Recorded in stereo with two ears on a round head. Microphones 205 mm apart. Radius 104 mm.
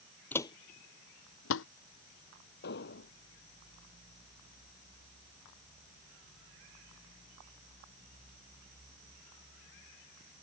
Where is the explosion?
50° left (ahead or behind).